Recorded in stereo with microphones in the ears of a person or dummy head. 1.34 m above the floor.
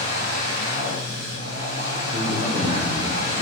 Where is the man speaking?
60° right (ahead or behind), 1.8 m.